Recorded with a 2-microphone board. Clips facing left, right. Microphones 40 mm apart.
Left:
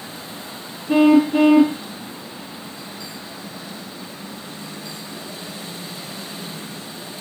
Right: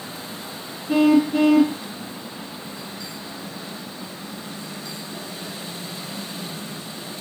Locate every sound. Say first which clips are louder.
0.9 s a car horn: left 3 dB; 20° left (ahead or behind)